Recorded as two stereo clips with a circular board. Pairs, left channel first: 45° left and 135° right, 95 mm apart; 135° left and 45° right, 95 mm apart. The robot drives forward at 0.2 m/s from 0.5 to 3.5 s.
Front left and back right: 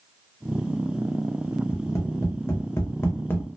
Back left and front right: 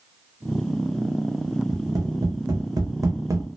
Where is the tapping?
5° right, 0.8 m; by 3.5 s 10° right, 0.6 m.